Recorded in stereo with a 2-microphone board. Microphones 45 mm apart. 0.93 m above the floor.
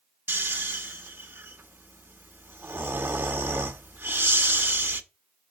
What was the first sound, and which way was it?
Snoring, 55° right (ahead or behind).